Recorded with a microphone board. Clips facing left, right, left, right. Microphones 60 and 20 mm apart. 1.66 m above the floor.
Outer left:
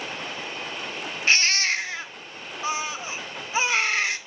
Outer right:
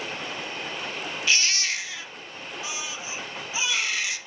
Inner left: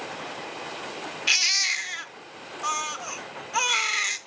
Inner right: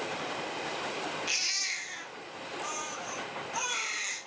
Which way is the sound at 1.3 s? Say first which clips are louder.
Outer left 4 dB, inner left 11 dB; 40° left (ahead or behind).